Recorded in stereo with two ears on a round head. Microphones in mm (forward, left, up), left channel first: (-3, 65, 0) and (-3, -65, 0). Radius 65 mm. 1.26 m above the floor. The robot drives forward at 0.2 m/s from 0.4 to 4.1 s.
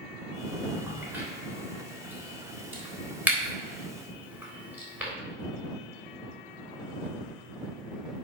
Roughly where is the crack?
Centre.